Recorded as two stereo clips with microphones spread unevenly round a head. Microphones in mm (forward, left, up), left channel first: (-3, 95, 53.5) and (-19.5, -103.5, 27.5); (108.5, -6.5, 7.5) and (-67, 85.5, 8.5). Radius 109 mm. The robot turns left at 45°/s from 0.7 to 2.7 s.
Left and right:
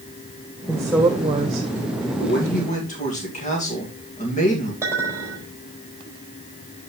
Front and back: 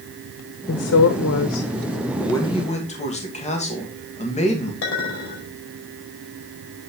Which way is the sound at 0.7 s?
5° left.